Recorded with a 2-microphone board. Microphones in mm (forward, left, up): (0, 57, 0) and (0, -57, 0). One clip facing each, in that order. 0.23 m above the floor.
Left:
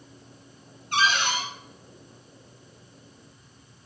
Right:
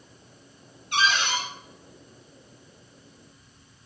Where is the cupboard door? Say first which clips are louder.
Left 1 dB; 45° left (ahead or behind), 3 m.